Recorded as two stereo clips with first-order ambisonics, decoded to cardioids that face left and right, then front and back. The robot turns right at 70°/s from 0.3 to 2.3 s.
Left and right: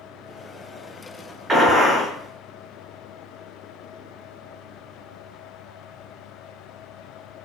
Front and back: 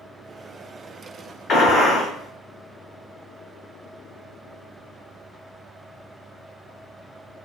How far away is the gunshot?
About 0.7 m.